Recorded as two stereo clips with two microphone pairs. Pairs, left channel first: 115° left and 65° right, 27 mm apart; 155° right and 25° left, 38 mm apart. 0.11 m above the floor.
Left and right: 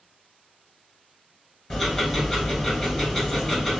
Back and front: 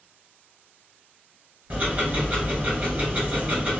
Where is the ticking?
50° left, 1.5 m.